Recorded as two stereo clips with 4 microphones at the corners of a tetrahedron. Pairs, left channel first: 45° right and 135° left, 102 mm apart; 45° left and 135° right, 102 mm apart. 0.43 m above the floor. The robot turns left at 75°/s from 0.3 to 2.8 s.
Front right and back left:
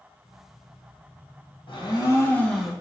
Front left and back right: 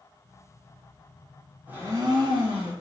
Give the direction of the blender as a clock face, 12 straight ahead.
2 o'clock.